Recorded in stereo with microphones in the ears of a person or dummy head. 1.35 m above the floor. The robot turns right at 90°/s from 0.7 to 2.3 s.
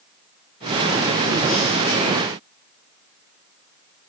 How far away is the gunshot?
No gunshot in this recording.